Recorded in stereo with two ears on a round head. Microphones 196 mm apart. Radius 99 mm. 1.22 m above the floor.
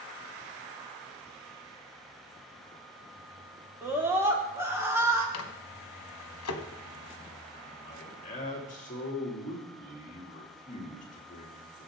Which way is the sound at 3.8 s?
10° right (ahead or behind).